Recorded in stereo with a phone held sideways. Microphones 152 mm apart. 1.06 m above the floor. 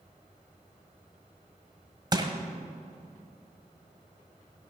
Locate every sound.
2.1 s crushing: 30° right (ahead or behind), 1.5 m